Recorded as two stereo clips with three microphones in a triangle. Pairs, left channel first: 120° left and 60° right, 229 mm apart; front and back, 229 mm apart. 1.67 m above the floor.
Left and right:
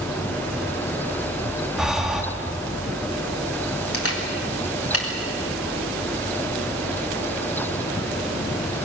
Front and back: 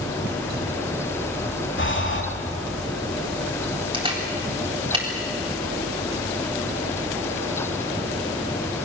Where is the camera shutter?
110° left, 3.5 m.